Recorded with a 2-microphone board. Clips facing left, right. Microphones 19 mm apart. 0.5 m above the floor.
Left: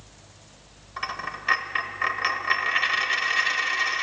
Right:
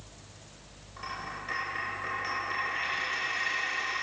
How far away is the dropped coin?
About 1.0 m.